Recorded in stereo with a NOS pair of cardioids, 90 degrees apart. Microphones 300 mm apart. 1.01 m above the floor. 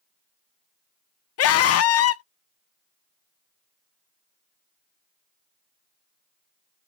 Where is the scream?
55° left, 0.6 m.